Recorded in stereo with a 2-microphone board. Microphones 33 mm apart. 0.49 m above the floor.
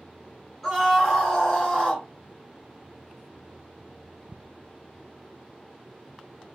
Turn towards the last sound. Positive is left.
turn(degrees=20)  # may be behind; listen again after turning